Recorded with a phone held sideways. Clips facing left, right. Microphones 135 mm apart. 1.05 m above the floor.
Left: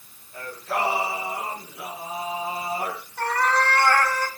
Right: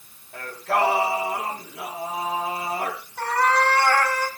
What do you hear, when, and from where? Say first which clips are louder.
0.3 s singing: right 4 dB; 75° right (ahead or behind), 6.5 m
3.2 s a cat meowing: right 2 dB; 10° right (ahead or behind), 4 m